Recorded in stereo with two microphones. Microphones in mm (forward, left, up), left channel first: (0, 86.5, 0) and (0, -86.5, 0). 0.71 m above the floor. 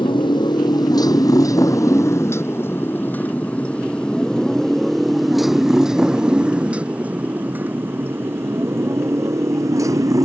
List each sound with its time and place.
0.0 s a motorcycle: 30° left (ahead or behind); by 10.3 s 20° right (ahead or behind)